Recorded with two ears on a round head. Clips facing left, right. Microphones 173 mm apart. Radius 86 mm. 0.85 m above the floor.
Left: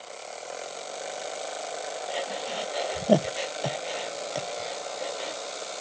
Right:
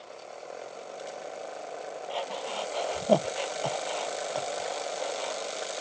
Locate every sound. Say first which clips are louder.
2.1 s breathing: left 1 dB; 20° left (ahead or behind)